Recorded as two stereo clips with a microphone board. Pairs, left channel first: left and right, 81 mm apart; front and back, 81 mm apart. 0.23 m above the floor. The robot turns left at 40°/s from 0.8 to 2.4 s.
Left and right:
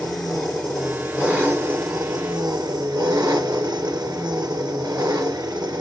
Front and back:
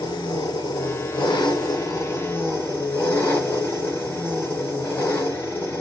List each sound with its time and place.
0.0 s an engine running: 5° left, 3.5 m; by 5.8 s 60° right, 3.5 m